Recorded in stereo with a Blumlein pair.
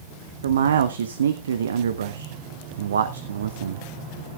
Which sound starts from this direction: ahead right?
A man speaking, at 0.4 s.